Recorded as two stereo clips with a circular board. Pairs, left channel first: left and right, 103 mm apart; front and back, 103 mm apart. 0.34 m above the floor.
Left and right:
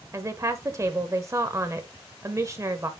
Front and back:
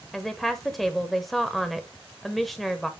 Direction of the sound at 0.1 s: 85° right.